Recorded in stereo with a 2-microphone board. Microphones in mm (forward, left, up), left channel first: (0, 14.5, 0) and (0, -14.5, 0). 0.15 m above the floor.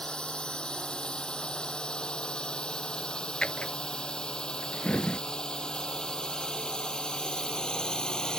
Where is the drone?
35° left (ahead or behind); by 8.4 s 25° left (ahead or behind).